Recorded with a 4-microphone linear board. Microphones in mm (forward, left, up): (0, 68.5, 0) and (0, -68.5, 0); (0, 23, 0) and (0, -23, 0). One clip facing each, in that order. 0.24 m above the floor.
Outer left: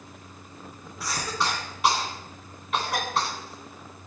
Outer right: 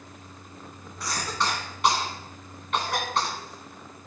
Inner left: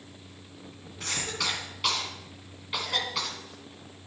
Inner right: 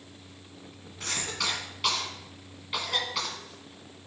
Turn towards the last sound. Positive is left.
turn(degrees=0)  # may be behind; listen again after turning